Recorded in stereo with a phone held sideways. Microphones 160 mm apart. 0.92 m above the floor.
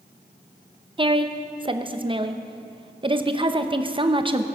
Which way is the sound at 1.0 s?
30° right (ahead or behind).